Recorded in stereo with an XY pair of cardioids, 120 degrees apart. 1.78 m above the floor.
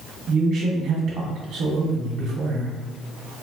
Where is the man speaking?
70° right, 1.5 m.